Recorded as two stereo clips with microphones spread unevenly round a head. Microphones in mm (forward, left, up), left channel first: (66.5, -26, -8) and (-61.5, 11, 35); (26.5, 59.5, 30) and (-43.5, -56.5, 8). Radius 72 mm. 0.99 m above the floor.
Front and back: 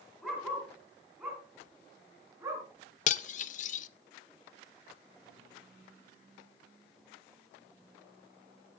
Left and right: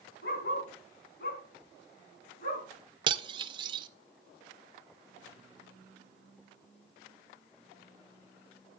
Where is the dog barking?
75° left, 5 m; by 2.7 s 95° left, 5.5 m.